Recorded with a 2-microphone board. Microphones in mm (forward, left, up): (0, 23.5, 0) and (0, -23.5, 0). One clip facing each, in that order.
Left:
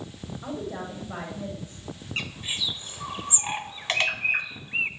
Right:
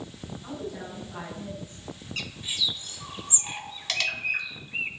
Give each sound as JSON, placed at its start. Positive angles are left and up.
{"t": 0.4, "sound": "a woman speaking", "side_deg": 80, "distance_m": 7.0}
{"t": 2.2, "sound": "a bird", "side_deg": 30, "distance_m": 1.2}